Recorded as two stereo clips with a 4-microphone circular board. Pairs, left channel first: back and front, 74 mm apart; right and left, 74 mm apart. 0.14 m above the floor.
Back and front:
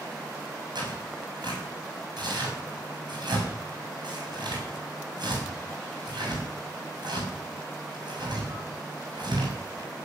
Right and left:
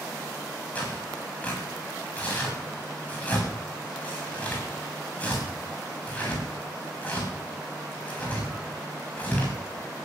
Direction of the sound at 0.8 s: 20° right.